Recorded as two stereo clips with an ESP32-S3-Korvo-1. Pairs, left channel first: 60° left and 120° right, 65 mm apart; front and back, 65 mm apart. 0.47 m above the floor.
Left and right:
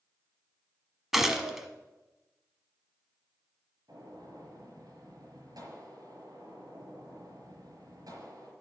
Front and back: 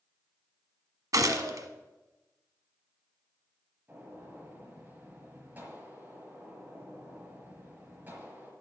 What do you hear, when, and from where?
1.1 s a gunshot: 155° left, 1.1 m
3.9 s a gunshot: 120° right, 5 m